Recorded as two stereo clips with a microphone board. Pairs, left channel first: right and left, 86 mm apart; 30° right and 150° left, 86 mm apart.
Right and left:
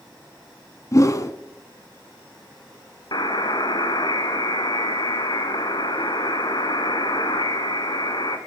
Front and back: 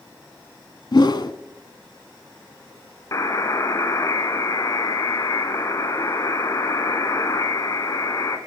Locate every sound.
0.9 s a whoosh: 45° right, 0.8 m
3.1 s a buzzer: 75° right, 1.1 m